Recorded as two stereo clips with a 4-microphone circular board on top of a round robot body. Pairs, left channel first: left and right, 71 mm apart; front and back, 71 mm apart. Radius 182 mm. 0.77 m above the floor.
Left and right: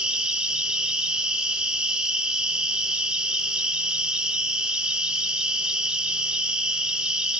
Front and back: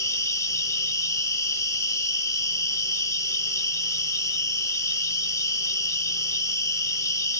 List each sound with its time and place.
0.0 s an insect: 15° right, 2.5 m